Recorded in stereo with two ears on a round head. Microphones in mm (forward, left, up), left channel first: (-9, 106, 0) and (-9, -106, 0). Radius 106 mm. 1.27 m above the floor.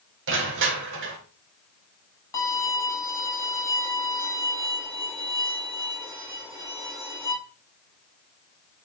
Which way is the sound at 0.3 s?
50° right (ahead or behind).